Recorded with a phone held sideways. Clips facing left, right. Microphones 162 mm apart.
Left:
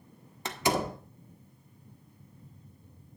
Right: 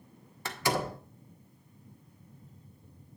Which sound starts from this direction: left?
A door slam, at 0.5 s.